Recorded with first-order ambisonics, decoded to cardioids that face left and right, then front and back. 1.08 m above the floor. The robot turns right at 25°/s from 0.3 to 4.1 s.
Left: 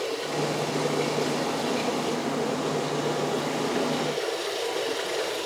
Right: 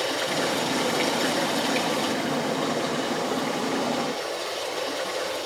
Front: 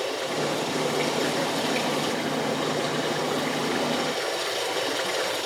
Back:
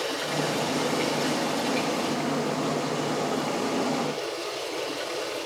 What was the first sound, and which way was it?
Running water, 95° right.